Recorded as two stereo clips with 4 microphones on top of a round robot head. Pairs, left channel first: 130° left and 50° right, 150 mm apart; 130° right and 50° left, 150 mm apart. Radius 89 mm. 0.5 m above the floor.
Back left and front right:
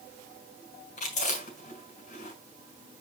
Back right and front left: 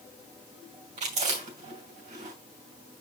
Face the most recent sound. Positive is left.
turn(degrees=90)